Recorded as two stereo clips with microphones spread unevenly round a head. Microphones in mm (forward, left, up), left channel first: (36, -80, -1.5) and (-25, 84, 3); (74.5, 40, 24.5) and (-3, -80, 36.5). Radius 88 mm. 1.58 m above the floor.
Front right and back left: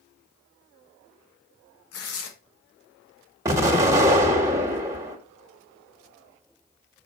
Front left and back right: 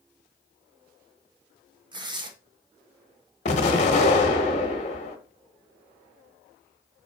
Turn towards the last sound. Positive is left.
turn(degrees=50)